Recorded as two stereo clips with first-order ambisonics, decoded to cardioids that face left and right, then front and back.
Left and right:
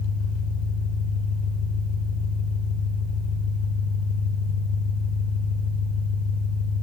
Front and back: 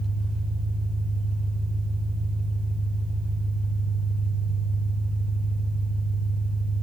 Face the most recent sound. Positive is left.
turn(degrees=90)